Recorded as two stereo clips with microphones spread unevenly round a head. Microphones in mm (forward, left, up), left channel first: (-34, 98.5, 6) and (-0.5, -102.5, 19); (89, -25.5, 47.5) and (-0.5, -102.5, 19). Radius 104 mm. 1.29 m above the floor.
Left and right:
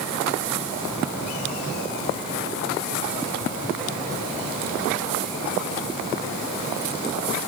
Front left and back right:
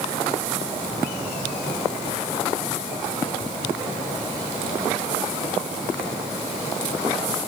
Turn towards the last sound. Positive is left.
No sound to turn to.